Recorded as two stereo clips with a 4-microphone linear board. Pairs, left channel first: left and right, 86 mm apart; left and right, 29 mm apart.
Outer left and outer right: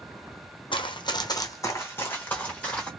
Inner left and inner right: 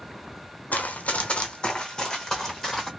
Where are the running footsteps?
75° left (ahead or behind), 0.8 m; by 2.9 s 10° left (ahead or behind), 1.7 m.